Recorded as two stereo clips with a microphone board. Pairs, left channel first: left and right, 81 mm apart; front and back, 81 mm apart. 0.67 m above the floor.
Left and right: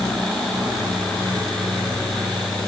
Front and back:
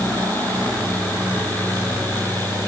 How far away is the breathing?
I don't hear breathing.